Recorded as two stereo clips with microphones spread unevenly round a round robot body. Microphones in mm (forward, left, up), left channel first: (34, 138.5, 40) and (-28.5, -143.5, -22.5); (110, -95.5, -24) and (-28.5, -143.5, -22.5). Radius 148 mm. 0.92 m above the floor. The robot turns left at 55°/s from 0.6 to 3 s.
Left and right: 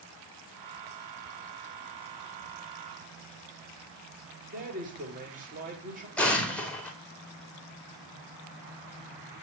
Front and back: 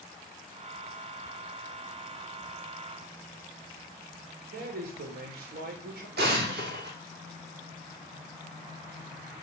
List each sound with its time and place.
4.5 s a man speaking: 165° right, 4 m
6.2 s an explosion: 165° left, 2 m